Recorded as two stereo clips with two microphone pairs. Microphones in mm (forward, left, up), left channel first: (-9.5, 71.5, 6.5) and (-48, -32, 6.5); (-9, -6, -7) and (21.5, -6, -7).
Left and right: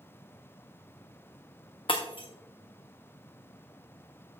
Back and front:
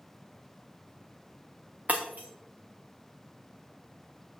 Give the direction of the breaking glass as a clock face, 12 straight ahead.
11 o'clock.